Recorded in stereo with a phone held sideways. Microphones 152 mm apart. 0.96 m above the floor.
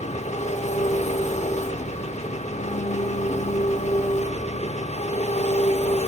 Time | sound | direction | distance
0.0 | an engine running | 50° left (ahead or behind) | 0.7 m